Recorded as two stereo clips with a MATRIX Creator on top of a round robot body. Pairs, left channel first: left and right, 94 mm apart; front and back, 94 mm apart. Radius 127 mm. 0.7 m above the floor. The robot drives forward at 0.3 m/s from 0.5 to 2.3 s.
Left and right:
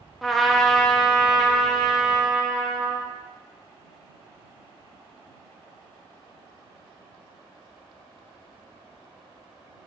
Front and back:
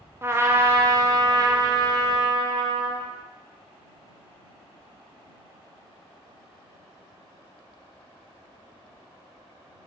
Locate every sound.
0.2 s a trumpet: 175° left, 1.0 m; by 3.1 s straight behind, 1.4 m